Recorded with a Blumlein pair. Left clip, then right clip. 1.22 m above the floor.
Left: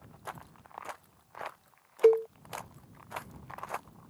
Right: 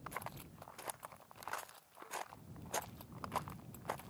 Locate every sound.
2.0 s a cowbell: 45° left